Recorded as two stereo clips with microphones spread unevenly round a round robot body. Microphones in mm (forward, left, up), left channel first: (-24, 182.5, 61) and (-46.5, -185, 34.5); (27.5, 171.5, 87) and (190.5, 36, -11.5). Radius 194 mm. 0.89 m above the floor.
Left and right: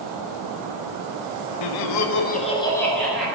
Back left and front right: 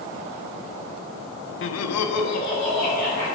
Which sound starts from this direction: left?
Laughter, at 1.6 s.